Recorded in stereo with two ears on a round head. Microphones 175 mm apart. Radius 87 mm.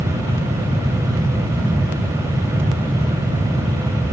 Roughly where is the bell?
I don't hear a bell.